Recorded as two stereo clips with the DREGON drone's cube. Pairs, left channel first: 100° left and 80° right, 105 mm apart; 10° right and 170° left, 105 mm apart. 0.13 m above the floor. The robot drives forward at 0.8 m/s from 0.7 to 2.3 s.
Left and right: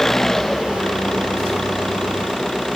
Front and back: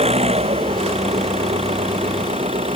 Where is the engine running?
175° right.